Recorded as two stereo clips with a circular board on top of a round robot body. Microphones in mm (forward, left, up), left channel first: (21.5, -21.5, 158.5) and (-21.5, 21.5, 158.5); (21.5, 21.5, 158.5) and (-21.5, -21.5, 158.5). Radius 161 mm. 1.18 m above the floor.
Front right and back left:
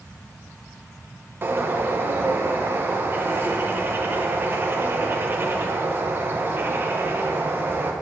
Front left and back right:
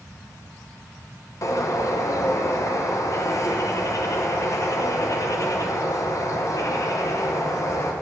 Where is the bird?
80° left, 1.0 m.